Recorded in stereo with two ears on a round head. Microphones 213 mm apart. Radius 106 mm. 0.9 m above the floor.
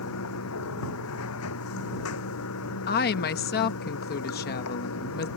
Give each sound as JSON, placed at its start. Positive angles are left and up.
{"t": 0.0, "sound": "running water", "side_deg": 65}
{"t": 2.9, "sound": "a woman speaking", "side_deg": 40}